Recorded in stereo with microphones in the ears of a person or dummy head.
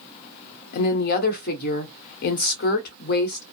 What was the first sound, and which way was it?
A woman speaking, 50° left (ahead or behind).